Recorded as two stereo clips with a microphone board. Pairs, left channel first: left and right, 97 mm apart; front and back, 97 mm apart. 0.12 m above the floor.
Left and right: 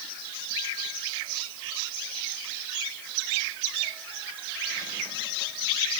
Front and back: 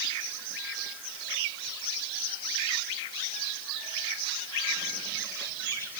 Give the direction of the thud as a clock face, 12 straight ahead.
I don't hear a thud.